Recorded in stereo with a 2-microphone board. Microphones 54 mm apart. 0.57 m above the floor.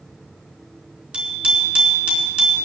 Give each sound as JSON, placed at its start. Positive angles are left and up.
{"t": 1.1, "sound": "a bicycle bell", "side_deg": -30, "distance_m": 4.0}